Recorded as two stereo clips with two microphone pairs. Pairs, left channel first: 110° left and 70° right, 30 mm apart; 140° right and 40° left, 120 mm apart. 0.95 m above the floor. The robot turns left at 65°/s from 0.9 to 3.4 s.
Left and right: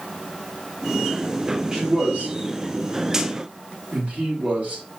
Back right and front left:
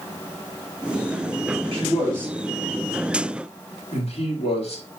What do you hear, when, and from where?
1.7 s a man speaking: straight ahead, 1.9 m; by 4.8 s 110° right, 1.9 m